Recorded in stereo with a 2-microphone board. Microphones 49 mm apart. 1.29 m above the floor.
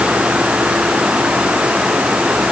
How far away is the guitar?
I don't hear a guitar.